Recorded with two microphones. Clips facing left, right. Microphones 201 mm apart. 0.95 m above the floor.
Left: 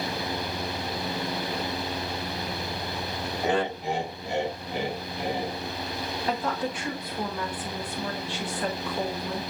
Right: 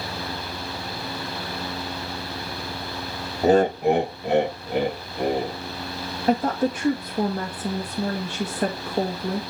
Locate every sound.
3.4 s laughter: 35° right (ahead or behind), 0.7 m; by 5.6 s 55° right (ahead or behind), 2.5 m
6.3 s a woman speaking: 45° right (ahead or behind), 1.3 m